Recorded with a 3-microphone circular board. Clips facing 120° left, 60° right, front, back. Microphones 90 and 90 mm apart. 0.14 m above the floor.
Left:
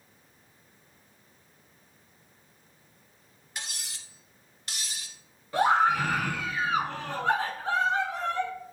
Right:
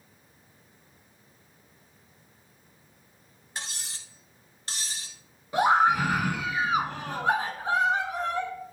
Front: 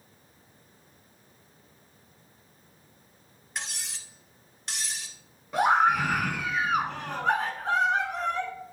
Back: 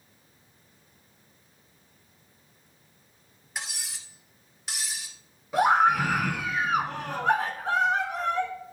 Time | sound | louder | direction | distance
3.5 | cutlery clinking | right 2 dB, even | 95° right | 1.2 m
5.5 | a scream | right 1 dB, back 1 dB | 95° right | 1.1 m